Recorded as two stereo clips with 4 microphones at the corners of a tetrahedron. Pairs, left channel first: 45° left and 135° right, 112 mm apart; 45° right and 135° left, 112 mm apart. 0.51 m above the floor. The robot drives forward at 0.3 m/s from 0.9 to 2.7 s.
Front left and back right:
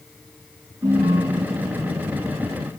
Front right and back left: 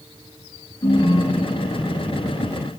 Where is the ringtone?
90° right, 4 m; by 2.3 s 100° right, 4 m.